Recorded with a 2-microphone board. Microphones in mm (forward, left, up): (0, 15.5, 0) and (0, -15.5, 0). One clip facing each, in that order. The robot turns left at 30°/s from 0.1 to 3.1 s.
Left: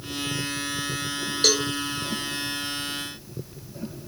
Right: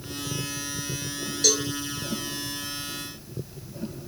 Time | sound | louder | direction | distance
1.4 | a cowbell | left 2 dB | 50° left (ahead or behind) | 0.5 m